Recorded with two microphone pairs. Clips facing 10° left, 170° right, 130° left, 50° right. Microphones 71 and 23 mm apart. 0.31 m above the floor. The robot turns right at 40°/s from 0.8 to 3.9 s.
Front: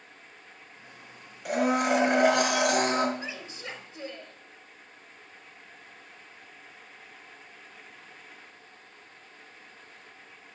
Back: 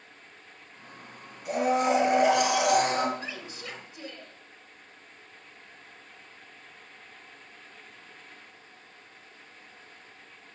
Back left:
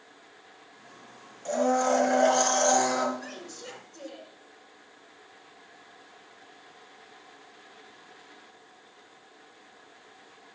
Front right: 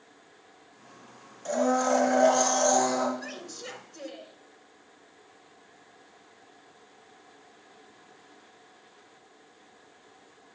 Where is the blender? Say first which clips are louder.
Even, even; 15° left, 4 m; by 3.1 s 80° left, 4 m.